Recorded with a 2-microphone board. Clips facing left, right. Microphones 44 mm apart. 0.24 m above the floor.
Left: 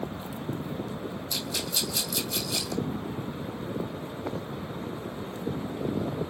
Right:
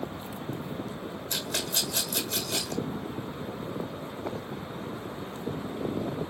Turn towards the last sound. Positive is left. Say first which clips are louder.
# right 2 dB
turn(degrees=-45)  # may be behind; listen again after turning